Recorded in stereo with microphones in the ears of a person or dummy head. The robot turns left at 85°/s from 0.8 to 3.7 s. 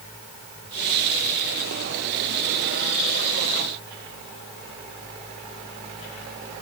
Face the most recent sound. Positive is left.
No sound to turn to.